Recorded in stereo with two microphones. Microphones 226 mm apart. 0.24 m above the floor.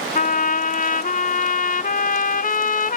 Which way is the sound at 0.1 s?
40° left (ahead or behind).